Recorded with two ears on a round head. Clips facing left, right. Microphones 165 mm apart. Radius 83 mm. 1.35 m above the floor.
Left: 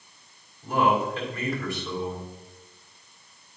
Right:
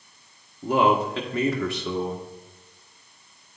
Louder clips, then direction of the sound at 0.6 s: Right 3 dB; 60° right (ahead or behind).